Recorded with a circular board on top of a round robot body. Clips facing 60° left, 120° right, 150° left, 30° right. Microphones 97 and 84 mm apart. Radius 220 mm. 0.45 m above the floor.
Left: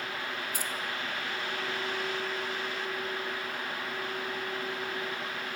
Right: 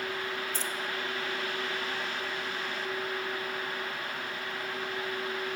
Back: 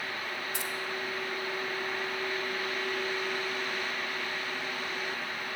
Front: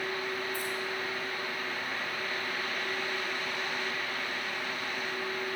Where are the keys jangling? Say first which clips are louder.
Right 1 dB, front 1 dB; 140° left, 1.2 m.